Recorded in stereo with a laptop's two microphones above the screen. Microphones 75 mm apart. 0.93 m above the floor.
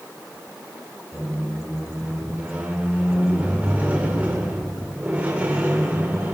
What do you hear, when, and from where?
1.1 s a squeak: 25° right (ahead or behind), 2 m